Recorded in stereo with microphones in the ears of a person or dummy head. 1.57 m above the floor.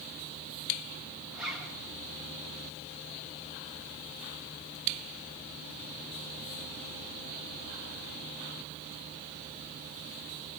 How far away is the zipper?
About 5.5 m.